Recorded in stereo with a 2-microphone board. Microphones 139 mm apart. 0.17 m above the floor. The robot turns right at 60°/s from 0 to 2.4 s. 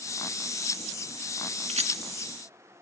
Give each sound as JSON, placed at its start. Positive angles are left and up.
{"t": 1.7, "sound": "a rattle", "side_deg": -55, "distance_m": 1.2}